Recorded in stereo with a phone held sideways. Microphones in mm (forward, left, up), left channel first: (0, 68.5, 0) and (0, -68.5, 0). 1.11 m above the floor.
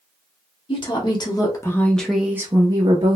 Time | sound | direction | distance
0.7 | a woman speaking | 35° left (ahead or behind) | 1.0 m